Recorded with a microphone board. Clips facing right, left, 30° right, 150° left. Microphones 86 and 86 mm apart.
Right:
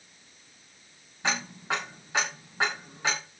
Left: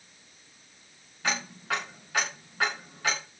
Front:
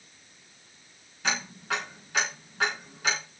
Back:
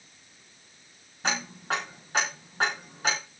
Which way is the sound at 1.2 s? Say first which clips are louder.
Right 1 dB, back 1 dB; 155° right.